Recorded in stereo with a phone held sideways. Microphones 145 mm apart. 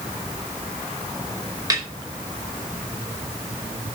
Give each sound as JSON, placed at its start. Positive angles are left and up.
{"t": 1.7, "sound": "a snare drum", "side_deg": -25, "distance_m": 4.5}